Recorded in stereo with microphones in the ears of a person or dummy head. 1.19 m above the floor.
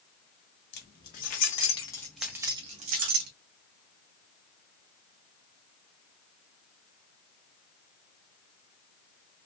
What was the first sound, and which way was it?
Keys jangling, 55° left (ahead or behind).